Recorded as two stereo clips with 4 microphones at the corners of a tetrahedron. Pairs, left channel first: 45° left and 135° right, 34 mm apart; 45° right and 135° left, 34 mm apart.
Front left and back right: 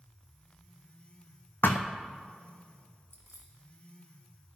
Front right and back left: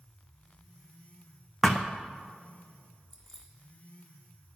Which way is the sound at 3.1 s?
135° right.